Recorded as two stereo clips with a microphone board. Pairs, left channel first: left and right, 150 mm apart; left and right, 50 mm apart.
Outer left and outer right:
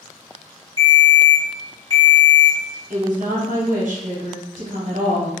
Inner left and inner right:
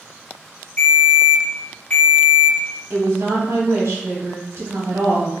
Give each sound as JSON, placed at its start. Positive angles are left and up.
{"t": 0.8, "sound": "a ringtone", "side_deg": 30, "distance_m": 1.3}
{"t": 2.9, "sound": "a woman speaking", "side_deg": -55, "distance_m": 0.8}